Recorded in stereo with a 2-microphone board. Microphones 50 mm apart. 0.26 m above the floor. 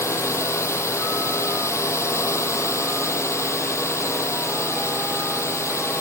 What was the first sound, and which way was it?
A drone, 75° left (ahead or behind).